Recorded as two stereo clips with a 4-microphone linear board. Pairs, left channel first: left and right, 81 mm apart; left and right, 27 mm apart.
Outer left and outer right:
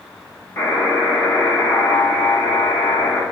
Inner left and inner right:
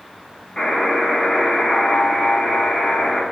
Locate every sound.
0.6 s a buzzer: 30° left (ahead or behind), 0.8 m